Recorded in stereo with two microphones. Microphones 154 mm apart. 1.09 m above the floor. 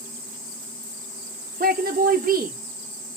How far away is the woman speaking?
About 0.6 m.